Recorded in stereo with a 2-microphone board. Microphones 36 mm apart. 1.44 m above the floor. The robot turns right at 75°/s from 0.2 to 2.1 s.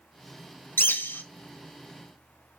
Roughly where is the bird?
Left.